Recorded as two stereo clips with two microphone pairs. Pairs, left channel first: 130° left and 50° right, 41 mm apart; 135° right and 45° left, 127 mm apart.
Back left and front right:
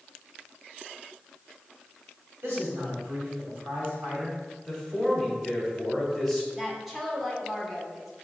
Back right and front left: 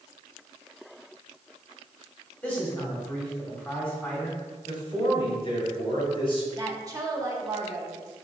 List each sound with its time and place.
2.4 s a man speaking: 60° right, 2.0 m
4.7 s a man speaking: 145° right, 1.5 m
6.6 s a woman speaking: 30° left, 0.8 m